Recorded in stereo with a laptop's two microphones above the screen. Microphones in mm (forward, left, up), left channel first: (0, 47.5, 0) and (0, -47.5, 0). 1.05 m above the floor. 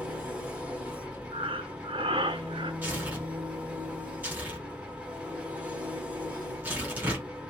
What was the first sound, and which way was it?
An engine running, 15° right (ahead or behind).